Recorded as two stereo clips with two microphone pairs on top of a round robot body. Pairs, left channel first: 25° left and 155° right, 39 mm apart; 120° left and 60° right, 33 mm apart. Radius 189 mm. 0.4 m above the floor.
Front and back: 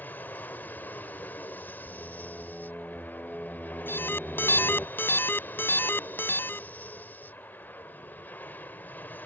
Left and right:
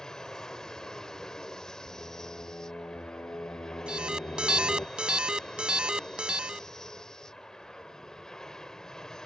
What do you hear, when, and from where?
0.0 s an aircraft: 50° left
1.9 s singing: 95° left
3.9 s an alarm: straight ahead